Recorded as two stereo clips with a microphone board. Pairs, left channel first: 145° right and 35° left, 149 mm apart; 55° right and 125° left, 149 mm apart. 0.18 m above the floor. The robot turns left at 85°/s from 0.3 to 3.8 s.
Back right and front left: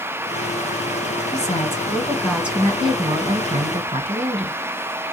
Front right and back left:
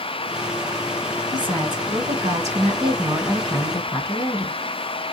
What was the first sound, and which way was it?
A woman speaking, 150° right.